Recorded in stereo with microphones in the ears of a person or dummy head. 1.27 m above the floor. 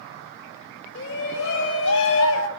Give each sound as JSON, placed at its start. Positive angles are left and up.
{"t": 0.9, "sound": "a shout", "side_deg": 65, "distance_m": 4.5}